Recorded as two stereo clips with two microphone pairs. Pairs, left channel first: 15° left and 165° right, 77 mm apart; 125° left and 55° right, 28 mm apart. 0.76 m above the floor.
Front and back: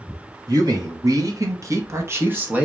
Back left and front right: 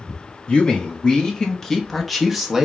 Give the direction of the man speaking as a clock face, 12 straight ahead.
6 o'clock.